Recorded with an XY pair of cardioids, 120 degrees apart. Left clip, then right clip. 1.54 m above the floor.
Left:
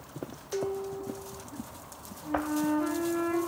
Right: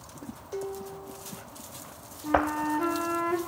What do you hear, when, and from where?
0.5 s dishes clattering: straight ahead, 1.7 m
2.2 s a flute: 65° right, 3 m